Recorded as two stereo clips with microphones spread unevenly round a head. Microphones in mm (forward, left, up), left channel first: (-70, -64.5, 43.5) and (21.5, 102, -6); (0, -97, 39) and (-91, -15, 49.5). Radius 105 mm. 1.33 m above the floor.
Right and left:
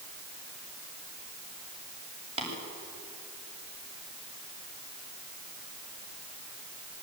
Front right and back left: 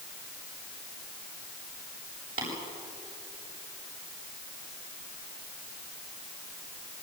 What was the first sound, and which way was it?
Tapping, 120° left.